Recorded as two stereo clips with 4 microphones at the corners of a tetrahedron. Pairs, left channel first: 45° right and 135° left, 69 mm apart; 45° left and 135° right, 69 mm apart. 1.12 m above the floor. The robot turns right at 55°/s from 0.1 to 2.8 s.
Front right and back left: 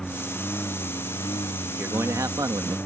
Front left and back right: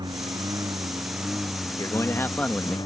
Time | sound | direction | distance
0.0 | a lawn mower | 125° right | ?
1.7 | a man speaking | 70° left | ?